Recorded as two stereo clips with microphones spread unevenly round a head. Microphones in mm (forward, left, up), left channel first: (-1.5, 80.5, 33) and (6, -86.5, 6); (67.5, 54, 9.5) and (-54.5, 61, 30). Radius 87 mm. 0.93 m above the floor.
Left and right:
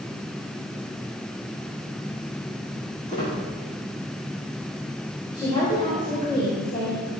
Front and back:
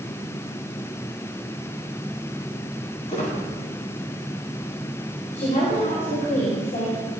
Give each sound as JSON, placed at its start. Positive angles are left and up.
{"t": 3.1, "sound": "a squeak", "azimuth_deg": 35, "distance_m": 6.0}
{"t": 5.3, "sound": "a woman speaking", "azimuth_deg": 25, "distance_m": 4.0}